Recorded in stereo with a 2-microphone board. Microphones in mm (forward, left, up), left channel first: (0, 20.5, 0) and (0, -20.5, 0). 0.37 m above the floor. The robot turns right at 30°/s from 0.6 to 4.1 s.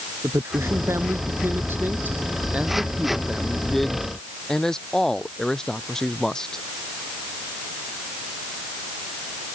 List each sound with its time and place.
0.2 s a man speaking: 90° right; by 6.7 s 15° left